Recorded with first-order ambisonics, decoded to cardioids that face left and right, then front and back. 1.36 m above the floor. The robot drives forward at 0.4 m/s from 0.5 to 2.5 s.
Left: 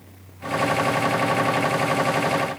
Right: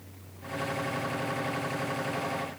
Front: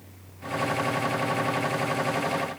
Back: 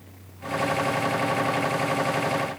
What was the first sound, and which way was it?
Only background noise.